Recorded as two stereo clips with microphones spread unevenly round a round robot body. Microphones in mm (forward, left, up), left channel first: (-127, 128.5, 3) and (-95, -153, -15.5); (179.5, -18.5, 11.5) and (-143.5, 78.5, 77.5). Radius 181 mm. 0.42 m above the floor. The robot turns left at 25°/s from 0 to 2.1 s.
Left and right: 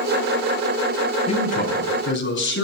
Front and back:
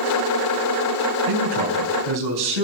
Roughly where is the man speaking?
Behind.